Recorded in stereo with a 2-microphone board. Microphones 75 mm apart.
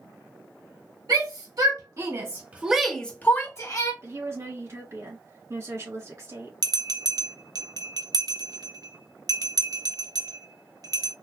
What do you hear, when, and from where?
1.1 s a shout: 65° right (ahead or behind), 2 m; by 3.9 s 50° left (ahead or behind), 1.6 m
4.0 s a woman speaking: 40° right (ahead or behind), 2 m
6.6 s a bell: 55° right (ahead or behind), 0.7 m